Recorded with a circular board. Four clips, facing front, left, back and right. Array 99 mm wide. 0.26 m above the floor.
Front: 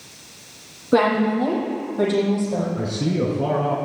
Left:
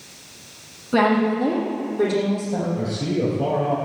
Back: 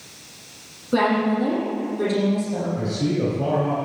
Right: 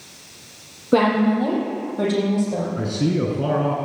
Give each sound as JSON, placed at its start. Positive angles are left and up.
{"t": 0.9, "sound": "a woman speaking", "azimuth_deg": -60, "distance_m": 6.0}
{"t": 2.8, "sound": "a man speaking", "azimuth_deg": -65, "distance_m": 3.0}